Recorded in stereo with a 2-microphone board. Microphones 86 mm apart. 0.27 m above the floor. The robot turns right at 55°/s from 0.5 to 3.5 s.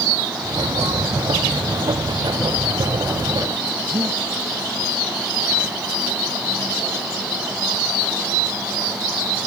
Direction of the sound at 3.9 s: 45° right (ahead or behind).